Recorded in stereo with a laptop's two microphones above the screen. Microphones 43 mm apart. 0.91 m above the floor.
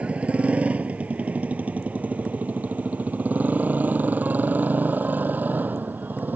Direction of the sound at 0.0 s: 30° right (ahead or behind).